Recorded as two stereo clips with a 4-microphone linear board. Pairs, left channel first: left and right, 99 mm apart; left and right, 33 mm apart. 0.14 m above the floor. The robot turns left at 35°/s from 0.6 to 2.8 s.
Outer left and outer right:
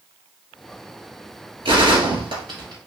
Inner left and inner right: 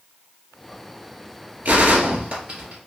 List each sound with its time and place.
1.6 s a gunshot: 95° right, 1.6 m; by 2.8 s 135° right, 1.6 m